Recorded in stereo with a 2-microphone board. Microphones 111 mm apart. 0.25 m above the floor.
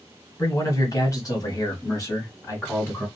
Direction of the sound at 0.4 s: 30° left (ahead or behind).